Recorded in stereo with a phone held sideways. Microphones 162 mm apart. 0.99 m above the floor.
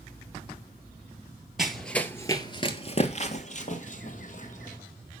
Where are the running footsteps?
5° right (ahead or behind), 1.2 m; by 4.8 s 50° left (ahead or behind), 2.5 m.